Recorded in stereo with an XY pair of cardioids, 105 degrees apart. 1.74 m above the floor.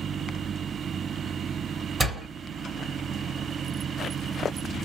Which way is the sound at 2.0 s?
30° right.